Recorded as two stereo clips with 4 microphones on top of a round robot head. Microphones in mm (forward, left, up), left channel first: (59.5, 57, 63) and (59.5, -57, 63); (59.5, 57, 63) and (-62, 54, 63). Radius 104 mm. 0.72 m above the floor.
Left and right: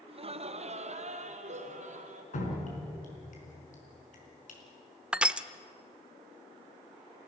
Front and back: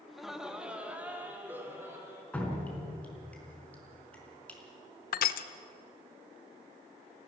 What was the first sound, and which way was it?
Laughter, 85° right.